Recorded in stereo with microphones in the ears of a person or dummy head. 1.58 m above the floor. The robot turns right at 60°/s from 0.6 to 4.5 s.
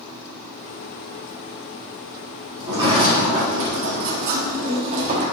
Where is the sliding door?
165° right, 1.4 m; by 5.2 s 50° right, 1.4 m.